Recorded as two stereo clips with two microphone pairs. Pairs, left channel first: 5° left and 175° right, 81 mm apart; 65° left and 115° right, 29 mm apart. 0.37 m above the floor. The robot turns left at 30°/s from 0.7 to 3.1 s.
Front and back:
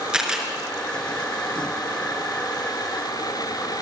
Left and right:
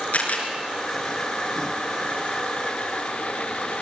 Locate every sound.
0.1 s a camera shutter: 100° left, 4.5 m